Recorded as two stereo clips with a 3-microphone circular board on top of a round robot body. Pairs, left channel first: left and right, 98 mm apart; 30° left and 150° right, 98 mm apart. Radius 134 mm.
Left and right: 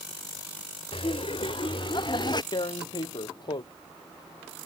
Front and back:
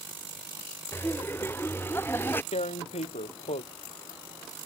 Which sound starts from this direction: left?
Laughter, at 0.9 s.